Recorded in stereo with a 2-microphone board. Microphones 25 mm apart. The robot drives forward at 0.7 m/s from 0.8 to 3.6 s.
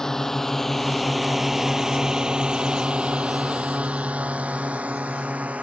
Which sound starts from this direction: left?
A drone, at 0.0 s.